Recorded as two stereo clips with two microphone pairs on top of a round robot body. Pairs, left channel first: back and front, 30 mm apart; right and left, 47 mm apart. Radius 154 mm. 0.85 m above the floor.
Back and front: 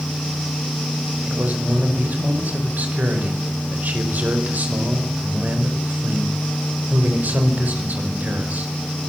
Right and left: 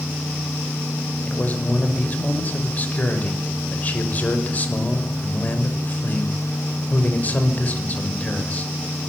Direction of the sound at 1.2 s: 35° right.